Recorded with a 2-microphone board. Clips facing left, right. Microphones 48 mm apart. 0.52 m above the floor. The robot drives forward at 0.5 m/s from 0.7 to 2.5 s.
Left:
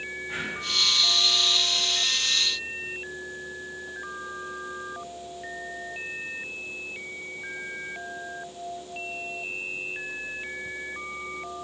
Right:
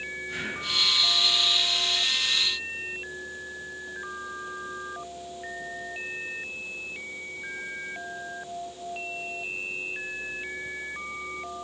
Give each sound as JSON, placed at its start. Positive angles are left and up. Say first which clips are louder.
{"t": 0.3, "sound": "breathing", "louder": "left 2 dB", "side_deg": 20, "distance_m": 3.5}